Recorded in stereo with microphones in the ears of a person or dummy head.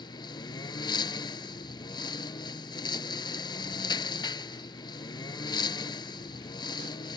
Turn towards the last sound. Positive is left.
turn(degrees=25)  # may be behind; listen again after turning